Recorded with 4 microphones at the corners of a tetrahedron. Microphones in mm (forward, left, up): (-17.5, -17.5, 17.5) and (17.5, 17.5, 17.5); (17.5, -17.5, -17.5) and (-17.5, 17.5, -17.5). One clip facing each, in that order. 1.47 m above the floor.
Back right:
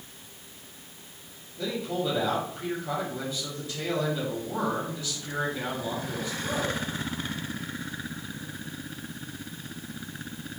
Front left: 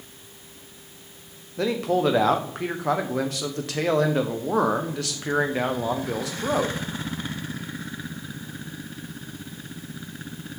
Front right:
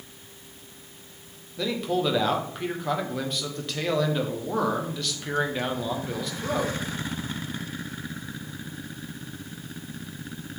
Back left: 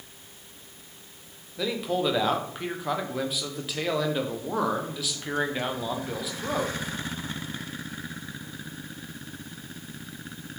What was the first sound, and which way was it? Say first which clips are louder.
A man speaking: front left 8 dB, front right 1 dB; 50° left.